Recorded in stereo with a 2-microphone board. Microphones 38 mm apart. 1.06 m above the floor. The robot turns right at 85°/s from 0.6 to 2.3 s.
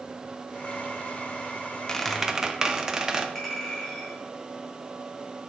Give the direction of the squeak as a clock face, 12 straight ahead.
7 o'clock.